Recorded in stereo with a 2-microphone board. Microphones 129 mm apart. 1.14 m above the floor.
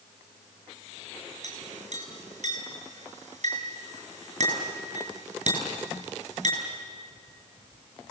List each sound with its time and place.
1.4 s a clink: 65° right (ahead or behind), 7 m